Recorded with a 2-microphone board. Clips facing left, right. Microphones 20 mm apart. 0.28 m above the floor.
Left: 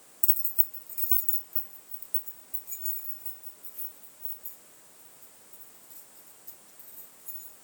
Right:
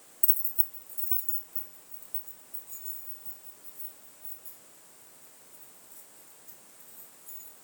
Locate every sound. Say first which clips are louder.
0.2 s keys jangling: left 2 dB; 40° left (ahead or behind), 0.7 m; by 7.5 s 75° left (ahead or behind), 7.5 m